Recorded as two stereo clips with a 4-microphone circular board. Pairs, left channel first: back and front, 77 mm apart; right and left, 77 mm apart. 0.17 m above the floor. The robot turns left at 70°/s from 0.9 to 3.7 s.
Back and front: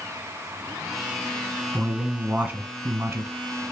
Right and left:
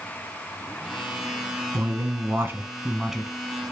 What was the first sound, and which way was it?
A man speaking, 105° left.